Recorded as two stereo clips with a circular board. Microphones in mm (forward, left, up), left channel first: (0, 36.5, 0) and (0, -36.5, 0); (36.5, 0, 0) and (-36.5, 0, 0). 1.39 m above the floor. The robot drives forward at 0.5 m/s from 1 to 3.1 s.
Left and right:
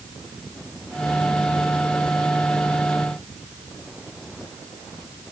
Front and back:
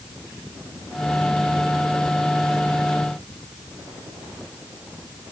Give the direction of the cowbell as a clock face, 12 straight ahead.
I don't hear a cowbell.